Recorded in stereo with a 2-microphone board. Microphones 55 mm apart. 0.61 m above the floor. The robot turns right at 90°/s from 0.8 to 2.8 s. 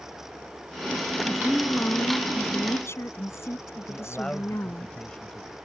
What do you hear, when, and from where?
1.3 s a woman speaking: 10° right; by 4.9 s 125° left
3.9 s a man speaking: 20° left (ahead or behind)